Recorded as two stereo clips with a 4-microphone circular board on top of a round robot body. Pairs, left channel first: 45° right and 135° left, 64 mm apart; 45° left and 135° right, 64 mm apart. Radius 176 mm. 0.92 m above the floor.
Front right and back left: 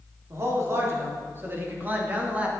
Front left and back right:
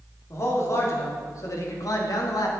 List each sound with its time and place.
0.3 s a man speaking: 90° left, 3.5 m; by 2.5 s 65° left, 2.5 m